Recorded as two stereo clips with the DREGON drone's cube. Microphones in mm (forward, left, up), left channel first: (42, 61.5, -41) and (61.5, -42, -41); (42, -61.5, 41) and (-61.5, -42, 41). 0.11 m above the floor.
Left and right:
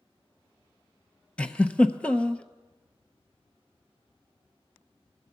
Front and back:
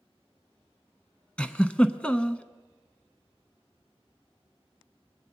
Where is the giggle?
45° left, 0.5 m.